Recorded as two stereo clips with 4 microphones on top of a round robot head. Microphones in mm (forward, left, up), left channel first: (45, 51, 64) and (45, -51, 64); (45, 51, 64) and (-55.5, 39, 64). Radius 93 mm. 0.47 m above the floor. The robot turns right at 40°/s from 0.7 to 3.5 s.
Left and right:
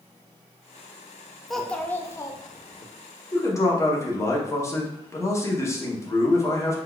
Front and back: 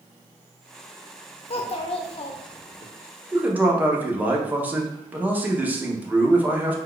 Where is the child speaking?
Straight ahead, 0.6 m; by 2.9 s 55° left, 0.6 m.